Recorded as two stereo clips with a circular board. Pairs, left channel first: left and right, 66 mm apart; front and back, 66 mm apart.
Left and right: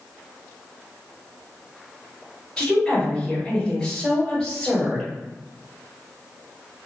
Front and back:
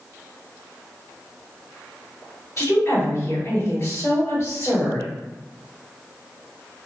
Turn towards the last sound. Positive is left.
turn(degrees=5)